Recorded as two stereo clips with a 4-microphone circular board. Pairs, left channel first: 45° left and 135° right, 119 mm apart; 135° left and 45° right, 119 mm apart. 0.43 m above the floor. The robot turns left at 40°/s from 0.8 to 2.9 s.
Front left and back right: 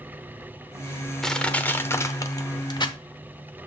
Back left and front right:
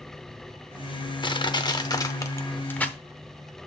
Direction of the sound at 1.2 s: 130° left.